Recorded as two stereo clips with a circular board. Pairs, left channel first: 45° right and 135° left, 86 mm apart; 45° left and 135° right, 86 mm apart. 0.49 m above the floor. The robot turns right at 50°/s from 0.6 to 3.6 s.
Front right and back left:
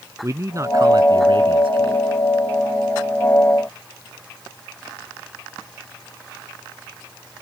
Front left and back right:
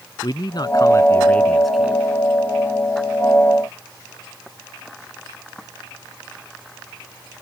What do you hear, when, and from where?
0.2 s a man speaking: 80° left; by 2.0 s 155° left